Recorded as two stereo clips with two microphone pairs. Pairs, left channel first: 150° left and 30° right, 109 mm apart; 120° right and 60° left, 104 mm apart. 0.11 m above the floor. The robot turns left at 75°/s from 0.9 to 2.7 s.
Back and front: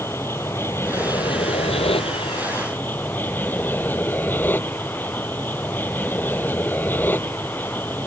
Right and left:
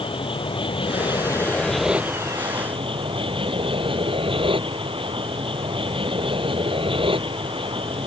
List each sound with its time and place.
0.0 s an aircraft: 145° right; by 8.1 s 80° left